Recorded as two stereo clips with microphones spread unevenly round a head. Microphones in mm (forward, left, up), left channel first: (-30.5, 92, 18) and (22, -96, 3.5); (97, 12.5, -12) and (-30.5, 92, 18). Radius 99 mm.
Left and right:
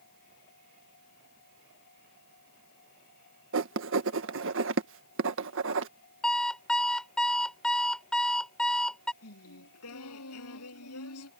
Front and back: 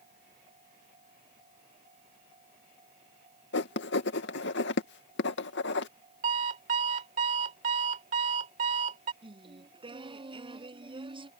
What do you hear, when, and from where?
3.5 s writing: 45° right
6.2 s an alarm clock: 170° right
9.2 s singing: 95° left